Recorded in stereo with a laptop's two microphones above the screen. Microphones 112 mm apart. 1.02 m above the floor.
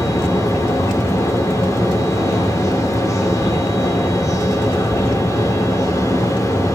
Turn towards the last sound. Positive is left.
turn(degrees=25)  # may be behind; listen again after turning